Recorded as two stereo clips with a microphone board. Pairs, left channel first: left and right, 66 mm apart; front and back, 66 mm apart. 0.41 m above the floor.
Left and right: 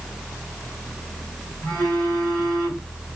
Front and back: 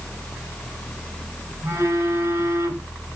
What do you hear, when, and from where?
1.6 s a phone buzzing: 155° left, 2 m